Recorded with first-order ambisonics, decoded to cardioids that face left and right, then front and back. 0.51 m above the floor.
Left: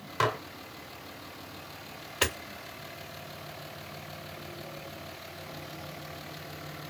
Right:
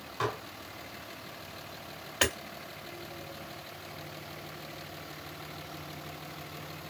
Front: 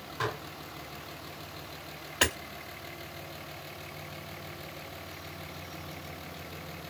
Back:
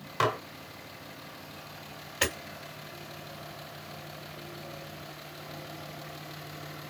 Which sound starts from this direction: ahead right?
Hammering, at 2.2 s.